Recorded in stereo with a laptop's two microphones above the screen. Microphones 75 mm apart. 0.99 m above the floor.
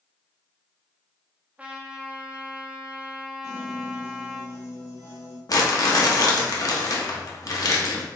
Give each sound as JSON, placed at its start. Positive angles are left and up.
{"t": 1.6, "sound": "a trumpet", "side_deg": -20, "distance_m": 0.5}
{"t": 3.4, "sound": "a piano", "side_deg": 45, "distance_m": 2.0}
{"t": 5.5, "sound": "crumpling", "side_deg": 50, "distance_m": 0.8}